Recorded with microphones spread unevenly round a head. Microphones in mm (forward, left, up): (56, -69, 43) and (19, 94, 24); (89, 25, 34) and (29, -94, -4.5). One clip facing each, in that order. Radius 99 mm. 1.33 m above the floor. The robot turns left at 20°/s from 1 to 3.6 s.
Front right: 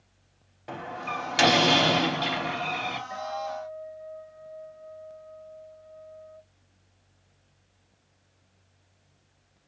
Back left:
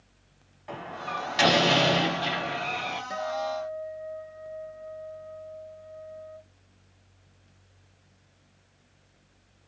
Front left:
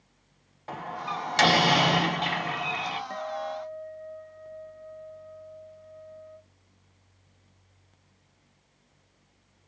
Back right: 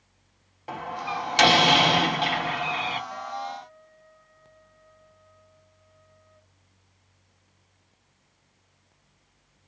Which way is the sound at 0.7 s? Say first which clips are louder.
Front right 1 dB, back right 3 dB; 35° right.